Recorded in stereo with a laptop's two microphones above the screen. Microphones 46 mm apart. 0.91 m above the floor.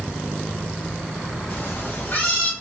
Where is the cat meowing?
50° left (ahead or behind), 0.9 m; by 2.5 s 40° left (ahead or behind), 1.1 m.